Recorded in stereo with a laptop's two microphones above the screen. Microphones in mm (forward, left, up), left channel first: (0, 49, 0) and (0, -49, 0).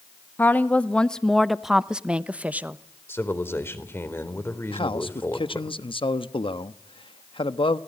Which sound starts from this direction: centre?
A woman speaking, at 0.4 s.